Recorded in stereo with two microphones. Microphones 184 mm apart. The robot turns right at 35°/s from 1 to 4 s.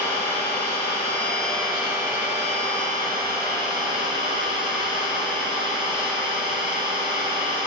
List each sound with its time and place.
0.0 s an engine running: 160° left, 3 m; by 7.7 s 95° right, 3 m